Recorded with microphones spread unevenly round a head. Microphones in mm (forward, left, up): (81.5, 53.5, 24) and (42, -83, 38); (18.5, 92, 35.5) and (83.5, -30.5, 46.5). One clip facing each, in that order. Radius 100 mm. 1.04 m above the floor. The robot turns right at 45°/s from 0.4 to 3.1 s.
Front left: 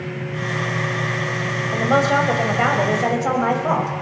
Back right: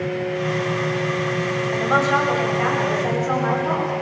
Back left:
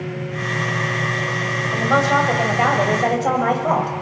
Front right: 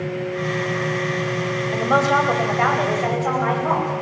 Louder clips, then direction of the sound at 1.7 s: Front left 3 dB, back left 1 dB; 10° left.